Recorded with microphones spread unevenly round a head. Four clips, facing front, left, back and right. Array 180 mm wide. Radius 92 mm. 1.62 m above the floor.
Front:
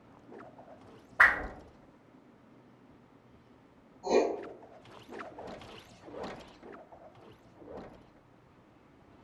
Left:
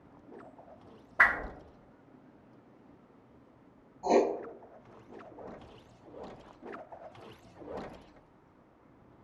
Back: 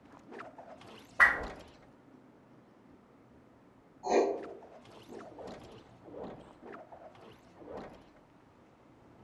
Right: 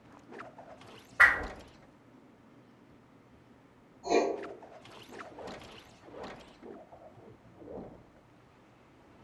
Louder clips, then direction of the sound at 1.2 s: Right 2 dB, front 2 dB; 90° left.